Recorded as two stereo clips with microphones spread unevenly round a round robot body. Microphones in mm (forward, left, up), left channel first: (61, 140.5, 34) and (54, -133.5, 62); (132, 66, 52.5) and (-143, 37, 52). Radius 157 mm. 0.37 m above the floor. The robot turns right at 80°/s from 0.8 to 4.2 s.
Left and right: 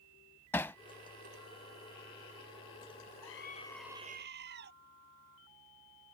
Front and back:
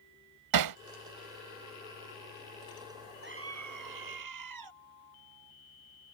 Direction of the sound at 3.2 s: 130° left.